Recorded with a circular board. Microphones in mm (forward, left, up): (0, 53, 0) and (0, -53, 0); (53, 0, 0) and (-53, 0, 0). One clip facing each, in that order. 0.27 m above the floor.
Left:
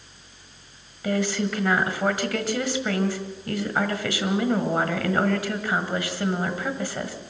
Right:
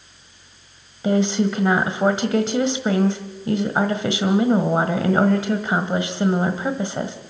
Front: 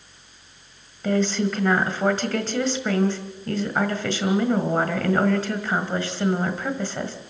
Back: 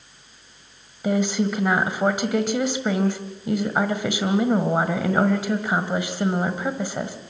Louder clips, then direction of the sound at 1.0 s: Right 6 dB, even; 120° right.